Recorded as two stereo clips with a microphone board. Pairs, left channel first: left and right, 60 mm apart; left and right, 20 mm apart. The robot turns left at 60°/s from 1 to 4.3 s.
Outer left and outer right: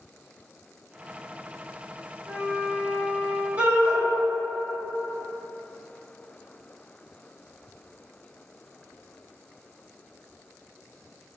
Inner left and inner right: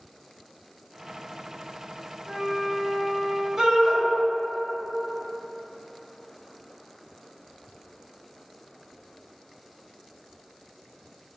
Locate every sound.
2.3 s a flute: 85° right, 1.4 m; by 3.5 s 155° right, 1.4 m
3.6 s a shout: 25° right (ahead or behind), 1.8 m; by 4.0 s 30° right (ahead or behind), 1.8 m